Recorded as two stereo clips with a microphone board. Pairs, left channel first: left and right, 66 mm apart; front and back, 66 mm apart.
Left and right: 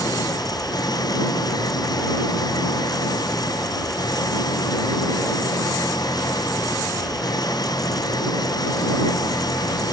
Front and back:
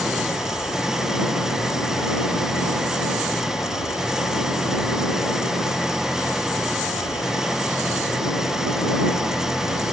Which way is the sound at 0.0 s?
95° left.